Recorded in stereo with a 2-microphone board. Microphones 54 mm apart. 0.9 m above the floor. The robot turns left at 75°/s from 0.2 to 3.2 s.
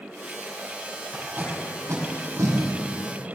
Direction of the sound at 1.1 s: 10° right (ahead or behind).